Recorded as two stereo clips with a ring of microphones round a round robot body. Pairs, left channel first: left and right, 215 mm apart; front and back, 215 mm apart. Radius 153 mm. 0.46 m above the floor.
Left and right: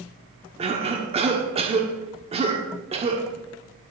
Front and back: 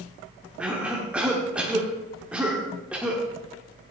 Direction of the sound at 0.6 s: 100° right.